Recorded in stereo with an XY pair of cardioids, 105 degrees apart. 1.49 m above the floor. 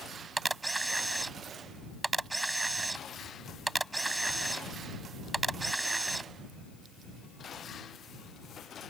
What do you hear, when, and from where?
0.4 s a camera shutter: 15° right